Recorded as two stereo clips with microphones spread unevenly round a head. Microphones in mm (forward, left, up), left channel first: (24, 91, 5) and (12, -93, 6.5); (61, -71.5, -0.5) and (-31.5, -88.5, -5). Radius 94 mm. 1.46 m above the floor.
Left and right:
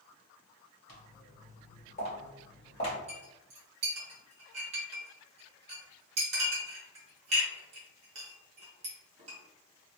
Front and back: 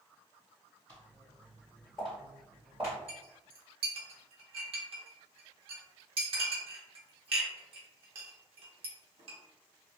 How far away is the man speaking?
No man speaking in this recording.